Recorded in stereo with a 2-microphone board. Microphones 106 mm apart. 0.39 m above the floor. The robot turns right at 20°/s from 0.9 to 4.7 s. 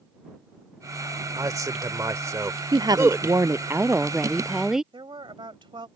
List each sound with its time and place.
1.4 s a man speaking: 35° right (ahead or behind); by 3.4 s 25° right (ahead or behind)
2.7 s a woman speaking: 45° right; by 4.8 s 5° right
4.9 s a woman speaking: 55° right (ahead or behind)